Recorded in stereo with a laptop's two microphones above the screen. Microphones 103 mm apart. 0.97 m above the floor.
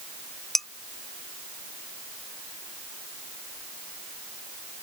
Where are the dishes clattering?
Centre (ahead or behind).